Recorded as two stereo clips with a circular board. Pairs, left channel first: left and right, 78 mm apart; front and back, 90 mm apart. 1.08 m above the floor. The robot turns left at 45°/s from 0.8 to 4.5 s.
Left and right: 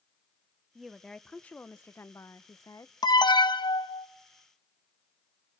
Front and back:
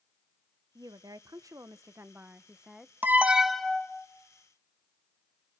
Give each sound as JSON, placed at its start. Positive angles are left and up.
{"t": 0.8, "sound": "a woman speaking", "azimuth_deg": -175, "distance_m": 0.6}
{"t": 3.0, "sound": "an alarm", "azimuth_deg": 115, "distance_m": 0.9}